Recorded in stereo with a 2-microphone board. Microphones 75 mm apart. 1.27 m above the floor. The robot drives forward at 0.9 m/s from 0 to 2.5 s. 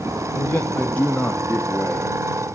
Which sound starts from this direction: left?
A man speaking, at 0.3 s.